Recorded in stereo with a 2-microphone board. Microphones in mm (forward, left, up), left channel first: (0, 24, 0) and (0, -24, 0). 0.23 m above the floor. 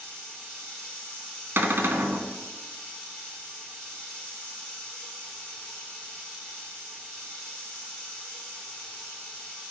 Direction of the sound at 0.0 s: 20° left (ahead or behind).